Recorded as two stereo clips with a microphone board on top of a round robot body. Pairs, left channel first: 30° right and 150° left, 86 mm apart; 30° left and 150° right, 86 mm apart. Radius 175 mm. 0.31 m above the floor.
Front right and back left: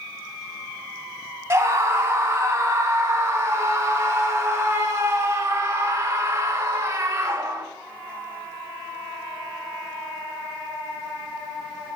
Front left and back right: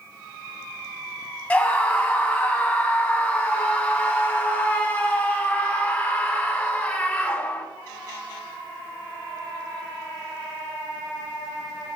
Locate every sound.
1.5 s a scream: 95° left, 2 m